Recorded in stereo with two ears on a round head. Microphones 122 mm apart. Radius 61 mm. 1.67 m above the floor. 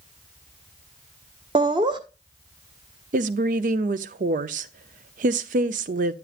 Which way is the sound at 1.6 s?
35° right (ahead or behind).